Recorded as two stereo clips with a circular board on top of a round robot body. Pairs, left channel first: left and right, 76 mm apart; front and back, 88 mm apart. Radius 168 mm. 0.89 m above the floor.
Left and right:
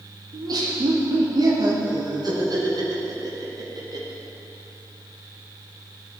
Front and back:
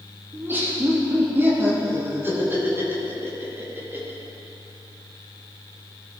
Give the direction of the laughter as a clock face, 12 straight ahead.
4 o'clock.